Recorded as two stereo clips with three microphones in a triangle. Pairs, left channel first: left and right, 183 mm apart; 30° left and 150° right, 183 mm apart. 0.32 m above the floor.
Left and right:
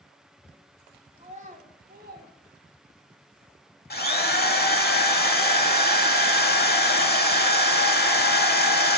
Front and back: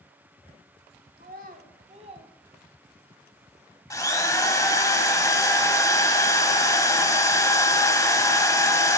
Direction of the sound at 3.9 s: 95° left.